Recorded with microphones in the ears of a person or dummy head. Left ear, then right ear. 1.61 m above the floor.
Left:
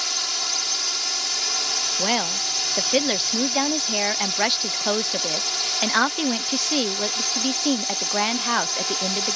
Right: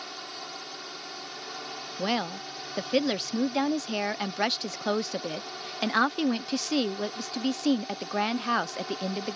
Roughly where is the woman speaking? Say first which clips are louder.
Left 8 dB; centre.